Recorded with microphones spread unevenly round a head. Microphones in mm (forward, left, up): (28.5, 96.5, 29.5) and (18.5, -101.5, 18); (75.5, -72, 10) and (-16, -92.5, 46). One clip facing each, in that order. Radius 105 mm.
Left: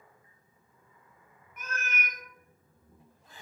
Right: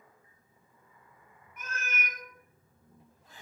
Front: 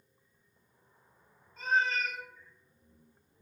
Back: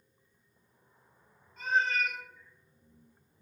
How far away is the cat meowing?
About 1.1 m.